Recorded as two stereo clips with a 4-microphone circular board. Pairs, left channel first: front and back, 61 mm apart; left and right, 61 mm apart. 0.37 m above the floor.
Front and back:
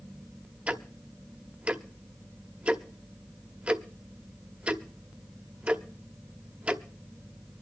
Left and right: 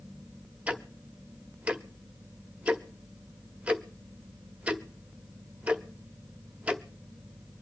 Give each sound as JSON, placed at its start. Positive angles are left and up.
{"t": 0.7, "sound": "ticking", "azimuth_deg": -135, "distance_m": 0.9}